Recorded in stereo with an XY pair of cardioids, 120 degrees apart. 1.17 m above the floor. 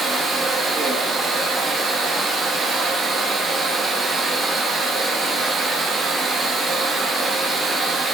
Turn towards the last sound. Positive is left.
turn(degrees=-35)